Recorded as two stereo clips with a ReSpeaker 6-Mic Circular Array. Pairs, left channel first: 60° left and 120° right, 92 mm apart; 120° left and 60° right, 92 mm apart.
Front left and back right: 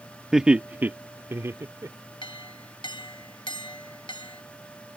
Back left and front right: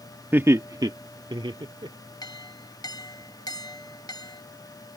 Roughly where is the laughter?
Ahead right.